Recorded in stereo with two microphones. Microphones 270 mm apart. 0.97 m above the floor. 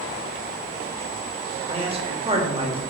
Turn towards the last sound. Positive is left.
turn(degrees=-20)  # may be behind; listen again after turning